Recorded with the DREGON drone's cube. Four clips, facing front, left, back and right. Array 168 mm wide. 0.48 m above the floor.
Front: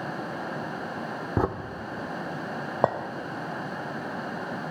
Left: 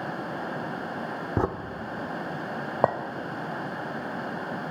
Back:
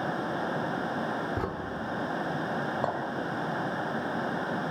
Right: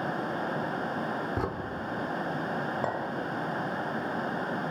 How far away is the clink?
About 1.2 m.